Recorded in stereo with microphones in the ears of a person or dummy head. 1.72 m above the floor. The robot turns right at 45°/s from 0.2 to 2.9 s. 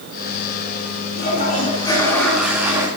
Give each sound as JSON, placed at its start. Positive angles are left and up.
{"t": 1.2, "sound": "a toilet flushing", "azimuth_deg": 130, "distance_m": 3.5}